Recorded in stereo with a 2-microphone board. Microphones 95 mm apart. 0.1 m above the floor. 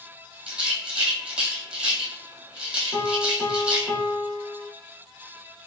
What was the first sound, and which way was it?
A rattle, 10° right (ahead or behind).